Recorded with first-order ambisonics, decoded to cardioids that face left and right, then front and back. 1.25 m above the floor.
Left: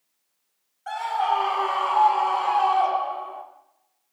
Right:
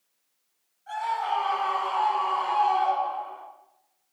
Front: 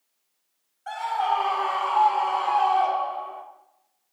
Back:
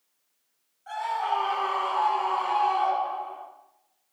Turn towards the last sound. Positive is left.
turn(degrees=60)